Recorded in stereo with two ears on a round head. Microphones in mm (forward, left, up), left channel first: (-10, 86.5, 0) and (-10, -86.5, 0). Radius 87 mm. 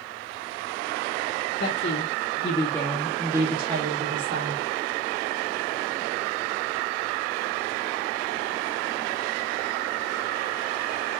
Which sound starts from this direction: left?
A woman speaking, at 1.6 s.